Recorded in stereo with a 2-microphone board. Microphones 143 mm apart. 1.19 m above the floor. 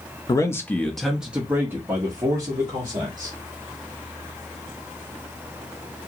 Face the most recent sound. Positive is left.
turn(degrees=-30)  # may be behind; listen again after turning